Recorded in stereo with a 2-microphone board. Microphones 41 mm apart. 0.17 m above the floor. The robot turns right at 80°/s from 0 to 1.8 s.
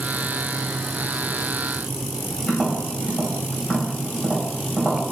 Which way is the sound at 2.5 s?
35° left (ahead or behind).